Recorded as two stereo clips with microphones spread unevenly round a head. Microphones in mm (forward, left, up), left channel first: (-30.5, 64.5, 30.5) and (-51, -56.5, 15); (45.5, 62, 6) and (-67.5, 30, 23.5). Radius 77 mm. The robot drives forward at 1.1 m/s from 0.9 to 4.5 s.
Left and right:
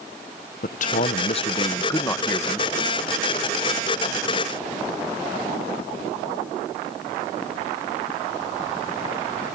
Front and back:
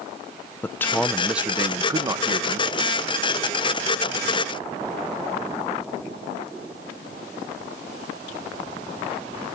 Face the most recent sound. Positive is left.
turn(degrees=165)